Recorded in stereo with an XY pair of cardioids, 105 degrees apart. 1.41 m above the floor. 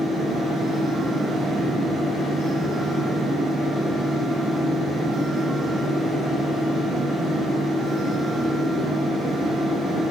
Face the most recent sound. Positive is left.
turn(degrees=-65)